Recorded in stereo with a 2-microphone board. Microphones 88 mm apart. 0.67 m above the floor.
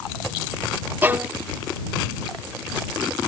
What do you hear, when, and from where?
1.0 s a violin: 20° right (ahead or behind)